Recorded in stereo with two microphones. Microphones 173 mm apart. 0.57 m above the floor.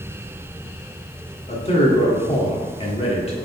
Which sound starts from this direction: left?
A man speaking, at 1.5 s.